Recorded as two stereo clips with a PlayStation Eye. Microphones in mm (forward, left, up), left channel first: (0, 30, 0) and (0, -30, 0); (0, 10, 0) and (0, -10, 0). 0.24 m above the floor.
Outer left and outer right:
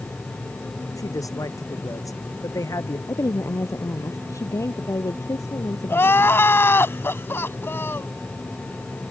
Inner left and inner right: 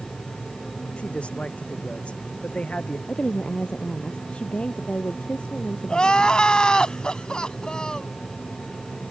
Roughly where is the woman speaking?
Left.